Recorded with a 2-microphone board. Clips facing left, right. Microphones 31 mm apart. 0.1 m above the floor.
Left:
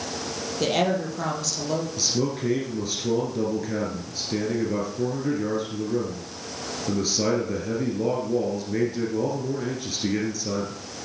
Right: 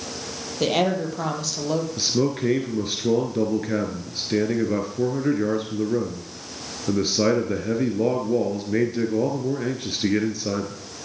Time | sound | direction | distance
0.6 | a woman speaking | 15° right (ahead or behind) | 3 m
2.0 | a man speaking | 25° right (ahead or behind) | 1.8 m